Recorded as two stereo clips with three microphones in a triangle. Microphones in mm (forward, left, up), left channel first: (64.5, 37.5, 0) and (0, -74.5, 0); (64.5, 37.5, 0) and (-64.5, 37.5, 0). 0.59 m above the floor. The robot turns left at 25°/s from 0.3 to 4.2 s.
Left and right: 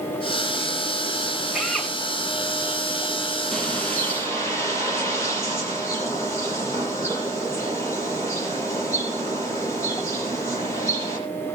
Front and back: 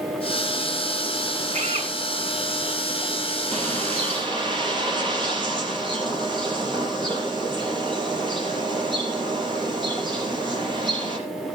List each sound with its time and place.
1.5 s a drill: 155° left, 6.5 m; by 1.9 s 150° left, 6.5 m
3.5 s a bird: 145° left, 7 m; by 11.2 s 130° left, 7 m